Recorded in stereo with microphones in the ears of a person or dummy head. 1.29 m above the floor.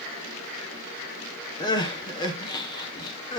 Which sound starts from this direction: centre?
Crying, at 1.6 s.